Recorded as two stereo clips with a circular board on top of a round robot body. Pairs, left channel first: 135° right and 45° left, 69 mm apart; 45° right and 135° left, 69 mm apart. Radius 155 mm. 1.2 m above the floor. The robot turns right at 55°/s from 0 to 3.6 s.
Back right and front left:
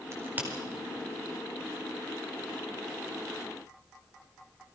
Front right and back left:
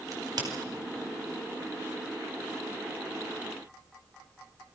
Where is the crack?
95° left, 5 m; by 0.5 s 115° left, 5 m.